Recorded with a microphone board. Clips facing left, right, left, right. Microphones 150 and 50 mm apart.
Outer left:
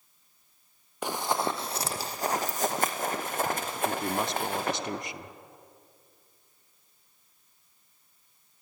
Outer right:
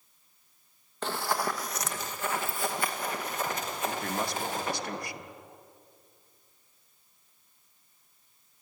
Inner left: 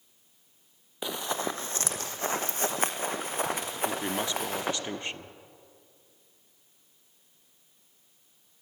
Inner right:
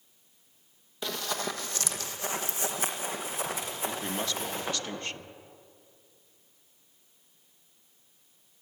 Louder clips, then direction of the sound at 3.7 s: Outer left 3 dB, inner left 3 dB; 20° left (ahead or behind).